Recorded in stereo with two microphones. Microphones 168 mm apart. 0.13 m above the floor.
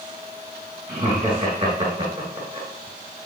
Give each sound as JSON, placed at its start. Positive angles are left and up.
{"t": 0.9, "sound": "laughter", "side_deg": -25, "distance_m": 1.8}